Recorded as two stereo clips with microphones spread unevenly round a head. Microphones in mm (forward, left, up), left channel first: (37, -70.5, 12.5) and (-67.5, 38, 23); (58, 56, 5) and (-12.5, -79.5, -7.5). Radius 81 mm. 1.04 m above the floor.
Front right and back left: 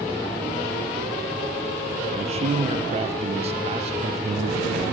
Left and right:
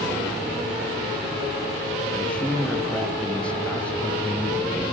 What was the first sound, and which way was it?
A man speaking, 145° left.